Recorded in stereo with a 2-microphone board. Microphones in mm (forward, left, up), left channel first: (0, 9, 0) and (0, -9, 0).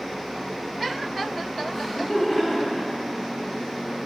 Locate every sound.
1.7 s laughter: 30° left (ahead or behind), 1.9 m